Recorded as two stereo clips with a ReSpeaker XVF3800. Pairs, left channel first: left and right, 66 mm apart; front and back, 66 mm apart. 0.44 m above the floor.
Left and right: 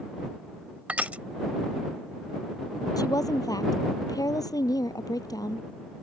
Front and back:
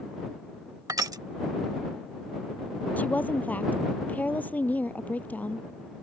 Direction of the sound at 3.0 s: 65° left.